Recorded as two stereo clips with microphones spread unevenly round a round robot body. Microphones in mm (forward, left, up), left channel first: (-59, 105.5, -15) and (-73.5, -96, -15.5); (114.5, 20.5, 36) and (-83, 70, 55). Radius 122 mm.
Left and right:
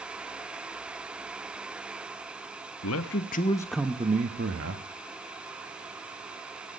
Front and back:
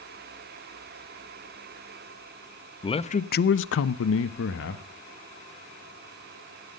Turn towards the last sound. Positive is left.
turn(degrees=-55)